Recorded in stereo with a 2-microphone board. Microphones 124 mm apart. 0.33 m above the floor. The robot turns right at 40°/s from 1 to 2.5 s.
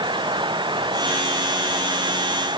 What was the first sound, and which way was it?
Only background noise.